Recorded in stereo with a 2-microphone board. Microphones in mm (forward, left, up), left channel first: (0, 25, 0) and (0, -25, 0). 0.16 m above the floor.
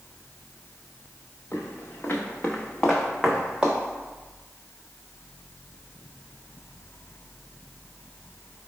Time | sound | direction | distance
1.5 | footsteps | 55° left (ahead or behind) | 1.1 m